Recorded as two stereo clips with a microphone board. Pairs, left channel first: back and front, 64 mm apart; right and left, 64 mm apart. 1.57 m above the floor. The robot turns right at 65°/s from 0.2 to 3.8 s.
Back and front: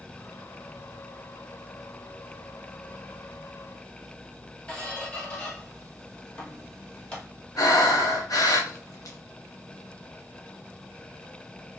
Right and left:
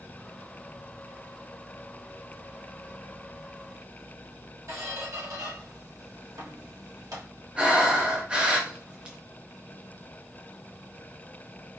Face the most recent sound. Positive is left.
turn(degrees=160)